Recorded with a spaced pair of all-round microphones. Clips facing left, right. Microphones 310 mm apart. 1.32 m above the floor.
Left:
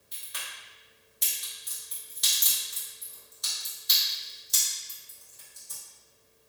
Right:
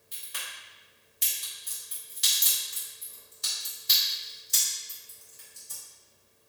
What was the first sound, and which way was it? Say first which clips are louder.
A crack: even; 35° right (ahead or behind).